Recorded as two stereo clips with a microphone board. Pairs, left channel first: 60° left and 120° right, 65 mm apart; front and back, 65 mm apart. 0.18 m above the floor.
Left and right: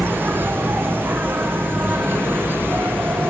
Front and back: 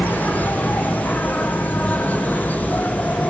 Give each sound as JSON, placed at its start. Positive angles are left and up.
{"t": 0.0, "sound": "an insect", "azimuth_deg": -65, "distance_m": 0.7}